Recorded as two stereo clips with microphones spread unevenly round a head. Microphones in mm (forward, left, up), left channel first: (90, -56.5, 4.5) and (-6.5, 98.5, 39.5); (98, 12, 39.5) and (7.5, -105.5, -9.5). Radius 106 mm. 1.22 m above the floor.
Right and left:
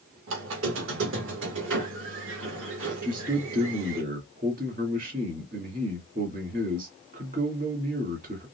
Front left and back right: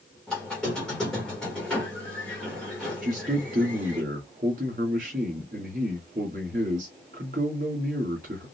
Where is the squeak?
130° left, 1.7 m.